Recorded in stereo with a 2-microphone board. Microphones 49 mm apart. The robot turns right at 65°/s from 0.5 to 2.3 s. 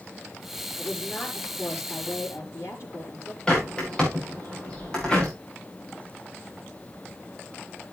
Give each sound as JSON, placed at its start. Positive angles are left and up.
{"t": 0.8, "sound": "a woman speaking", "azimuth_deg": 5, "distance_m": 5.0}
{"t": 3.5, "sound": "a bird", "side_deg": 20, "distance_m": 6.0}